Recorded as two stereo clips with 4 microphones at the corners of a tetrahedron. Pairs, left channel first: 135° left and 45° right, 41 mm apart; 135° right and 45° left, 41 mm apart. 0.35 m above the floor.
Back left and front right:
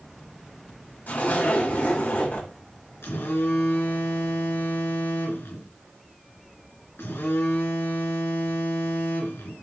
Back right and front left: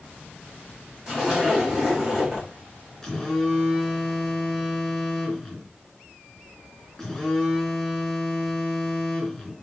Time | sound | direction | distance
1.1 | a zipper | 120° left | 2.5 m
3.0 | a phone buzzing | 140° left | 2.5 m